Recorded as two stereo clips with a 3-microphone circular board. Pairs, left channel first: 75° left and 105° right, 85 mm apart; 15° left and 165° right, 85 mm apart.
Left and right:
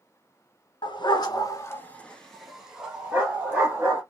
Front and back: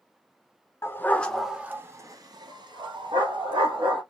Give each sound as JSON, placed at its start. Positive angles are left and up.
{"t": 0.8, "sound": "a dog barking", "azimuth_deg": 70, "distance_m": 1.2}